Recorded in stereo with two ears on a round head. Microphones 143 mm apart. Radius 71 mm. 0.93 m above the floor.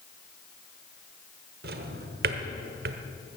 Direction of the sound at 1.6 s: 70° right (ahead or behind).